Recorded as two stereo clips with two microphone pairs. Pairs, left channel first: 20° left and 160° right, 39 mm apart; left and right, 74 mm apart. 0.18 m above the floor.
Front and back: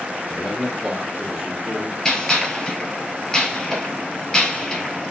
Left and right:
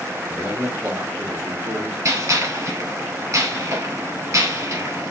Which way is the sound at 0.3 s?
45° right.